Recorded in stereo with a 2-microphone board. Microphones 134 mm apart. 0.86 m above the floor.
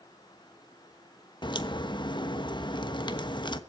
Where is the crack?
35° left (ahead or behind), 1.2 m.